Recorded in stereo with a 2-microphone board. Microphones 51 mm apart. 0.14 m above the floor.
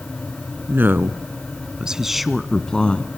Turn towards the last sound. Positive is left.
turn(degrees=25)  # may be behind; listen again after turning